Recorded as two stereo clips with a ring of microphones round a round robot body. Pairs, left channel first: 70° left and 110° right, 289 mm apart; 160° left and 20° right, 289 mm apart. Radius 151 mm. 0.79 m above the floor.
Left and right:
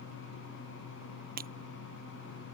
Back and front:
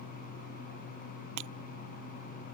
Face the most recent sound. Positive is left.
turn(degrees=-50)